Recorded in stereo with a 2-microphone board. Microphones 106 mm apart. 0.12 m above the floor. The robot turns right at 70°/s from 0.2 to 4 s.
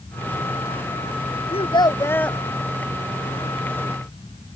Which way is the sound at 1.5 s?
115° left.